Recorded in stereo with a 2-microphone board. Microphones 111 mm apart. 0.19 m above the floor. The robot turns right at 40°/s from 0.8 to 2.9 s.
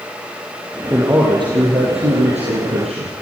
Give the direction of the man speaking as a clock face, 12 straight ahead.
5 o'clock.